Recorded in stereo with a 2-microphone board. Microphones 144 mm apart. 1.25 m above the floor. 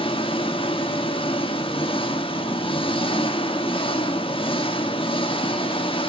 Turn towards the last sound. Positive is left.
turn(degrees=40)  # may be behind; listen again after turning